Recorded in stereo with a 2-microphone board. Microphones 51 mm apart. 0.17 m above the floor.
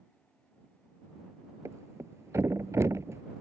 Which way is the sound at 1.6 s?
75° right (ahead or behind).